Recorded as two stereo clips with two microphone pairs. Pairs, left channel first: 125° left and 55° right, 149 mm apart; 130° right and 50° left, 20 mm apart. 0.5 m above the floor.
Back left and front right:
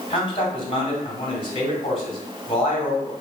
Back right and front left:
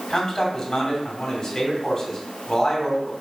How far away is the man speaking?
About 2 m.